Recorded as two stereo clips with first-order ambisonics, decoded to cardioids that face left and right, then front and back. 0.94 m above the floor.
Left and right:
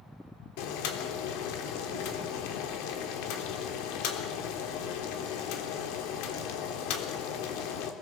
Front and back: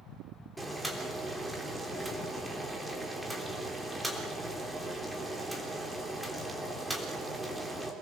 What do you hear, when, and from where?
0.6 s boiling: 95° left, 3 m